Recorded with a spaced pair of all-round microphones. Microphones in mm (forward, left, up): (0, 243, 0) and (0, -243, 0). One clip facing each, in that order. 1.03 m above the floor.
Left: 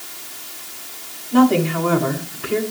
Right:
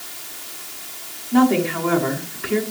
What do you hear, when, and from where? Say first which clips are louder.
1.3 s a woman speaking: left 2 dB; 55° left (ahead or behind), 7 m